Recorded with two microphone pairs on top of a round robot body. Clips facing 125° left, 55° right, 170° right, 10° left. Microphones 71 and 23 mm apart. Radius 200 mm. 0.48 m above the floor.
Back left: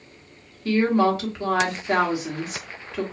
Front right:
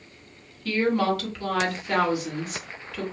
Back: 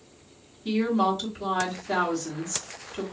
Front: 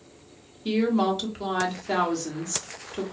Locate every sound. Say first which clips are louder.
0.7 s a woman speaking: back left 4 dB, front 1 dB; 60° left, 1.6 m